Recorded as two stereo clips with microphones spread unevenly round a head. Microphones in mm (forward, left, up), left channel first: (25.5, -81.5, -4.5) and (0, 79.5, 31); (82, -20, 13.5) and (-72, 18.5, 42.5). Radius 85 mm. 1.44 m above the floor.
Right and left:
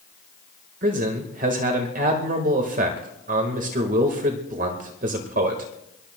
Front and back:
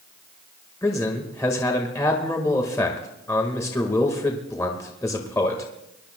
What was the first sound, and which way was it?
A man speaking, 60° left.